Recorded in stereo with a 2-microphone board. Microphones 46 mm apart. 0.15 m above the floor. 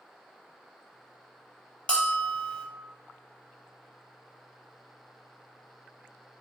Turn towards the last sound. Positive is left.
turn(degrees=25)  # may be behind; listen again after turning